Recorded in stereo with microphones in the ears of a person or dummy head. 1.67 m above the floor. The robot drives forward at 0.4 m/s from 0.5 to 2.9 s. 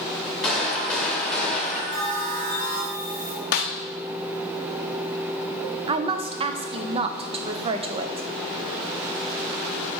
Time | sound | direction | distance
0.4 | a gunshot | 10° left (ahead or behind) | 1.7 m
1.9 | a bell | 65° right (ahead or behind) | 2 m
3.5 | a snare drum | 45° left (ahead or behind) | 0.6 m
5.9 | a woman speaking | 30° right (ahead or behind) | 0.6 m